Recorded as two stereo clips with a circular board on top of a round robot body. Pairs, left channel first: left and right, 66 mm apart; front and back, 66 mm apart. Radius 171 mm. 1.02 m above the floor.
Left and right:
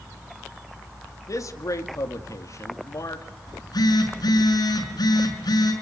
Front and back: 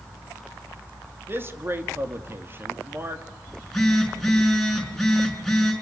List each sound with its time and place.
1.3 s a man speaking: 125° left, 2.5 m
3.5 s a phone buzzing: 90° left, 6 m